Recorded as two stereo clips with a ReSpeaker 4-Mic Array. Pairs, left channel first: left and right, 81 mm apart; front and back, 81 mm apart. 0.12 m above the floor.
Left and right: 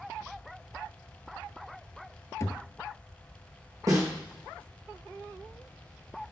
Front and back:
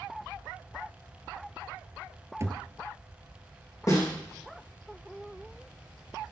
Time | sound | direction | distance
2.4 | a thud | 135° left | 1.0 m
3.9 | a snare drum | 45° right | 5.5 m